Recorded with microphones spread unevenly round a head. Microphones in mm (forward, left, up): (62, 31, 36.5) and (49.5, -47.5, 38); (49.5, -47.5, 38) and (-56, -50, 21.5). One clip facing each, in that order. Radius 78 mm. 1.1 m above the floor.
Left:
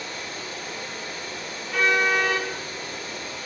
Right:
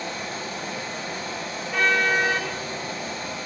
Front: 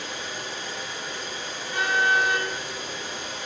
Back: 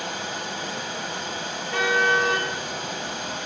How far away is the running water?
About 3.5 m.